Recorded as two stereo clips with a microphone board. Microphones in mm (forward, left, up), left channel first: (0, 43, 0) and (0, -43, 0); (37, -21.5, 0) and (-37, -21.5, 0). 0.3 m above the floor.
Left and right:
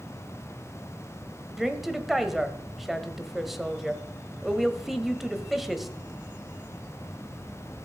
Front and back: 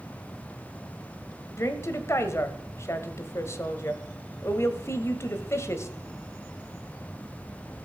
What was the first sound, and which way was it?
A woman speaking, 5° right.